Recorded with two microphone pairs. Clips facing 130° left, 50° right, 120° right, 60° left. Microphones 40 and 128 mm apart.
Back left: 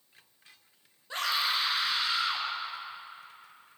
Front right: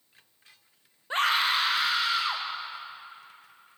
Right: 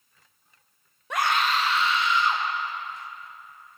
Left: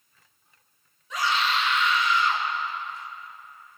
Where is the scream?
100° right, 0.9 m; by 2.5 s 50° right, 2 m.